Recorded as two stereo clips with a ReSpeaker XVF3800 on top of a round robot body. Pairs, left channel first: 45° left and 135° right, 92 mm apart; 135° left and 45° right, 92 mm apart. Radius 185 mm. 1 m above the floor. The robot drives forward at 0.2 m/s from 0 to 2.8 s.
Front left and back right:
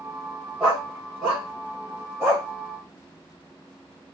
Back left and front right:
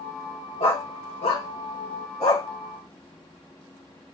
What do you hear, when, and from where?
0.6 s a dog barking: 145° left, 0.8 m; by 2.5 s 160° left, 1.1 m